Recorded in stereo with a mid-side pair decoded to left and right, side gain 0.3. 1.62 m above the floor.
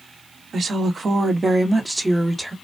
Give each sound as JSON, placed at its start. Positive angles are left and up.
{"t": 0.5, "sound": "a woman speaking", "azimuth_deg": -65, "distance_m": 1.1}